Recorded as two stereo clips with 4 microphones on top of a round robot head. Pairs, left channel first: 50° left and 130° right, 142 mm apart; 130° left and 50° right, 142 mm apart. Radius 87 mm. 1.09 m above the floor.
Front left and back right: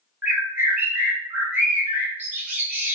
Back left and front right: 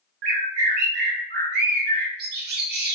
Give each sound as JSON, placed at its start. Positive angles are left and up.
{"t": 0.2, "sound": "a bird", "azimuth_deg": -55, "distance_m": 0.6}